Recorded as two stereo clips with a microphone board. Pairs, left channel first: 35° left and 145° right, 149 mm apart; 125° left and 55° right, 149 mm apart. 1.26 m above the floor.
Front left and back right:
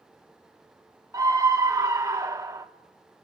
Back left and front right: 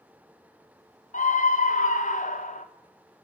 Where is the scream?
150° left, 0.7 m.